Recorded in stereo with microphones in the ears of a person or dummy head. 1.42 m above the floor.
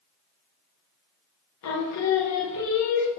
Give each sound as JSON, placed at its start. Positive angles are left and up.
{"t": 1.6, "sound": "singing", "side_deg": 80, "distance_m": 0.8}